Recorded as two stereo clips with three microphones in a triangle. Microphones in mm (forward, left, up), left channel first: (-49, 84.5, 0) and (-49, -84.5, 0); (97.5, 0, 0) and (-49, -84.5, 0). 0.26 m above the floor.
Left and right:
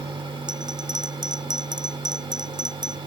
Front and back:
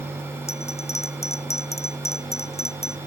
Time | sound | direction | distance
0.5 | a bell | 25° right | ?